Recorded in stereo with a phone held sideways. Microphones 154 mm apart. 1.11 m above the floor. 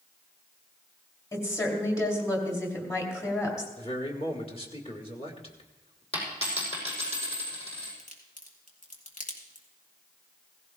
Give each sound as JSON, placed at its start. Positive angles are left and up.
{"t": 1.3, "sound": "a woman speaking", "side_deg": 20, "distance_m": 3.0}
{"t": 3.8, "sound": "a man speaking", "side_deg": 40, "distance_m": 1.9}
{"t": 6.1, "sound": "a dropped coin", "side_deg": 40, "distance_m": 5.5}
{"t": 8.0, "sound": "a crack", "side_deg": 60, "distance_m": 2.5}